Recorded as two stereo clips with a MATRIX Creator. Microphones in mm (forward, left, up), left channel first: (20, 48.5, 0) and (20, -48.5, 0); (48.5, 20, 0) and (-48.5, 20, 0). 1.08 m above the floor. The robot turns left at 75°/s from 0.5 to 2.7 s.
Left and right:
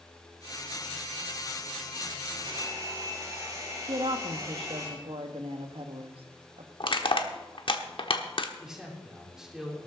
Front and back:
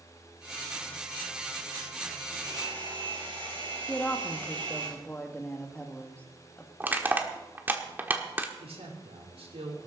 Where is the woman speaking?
75° right, 1.5 m.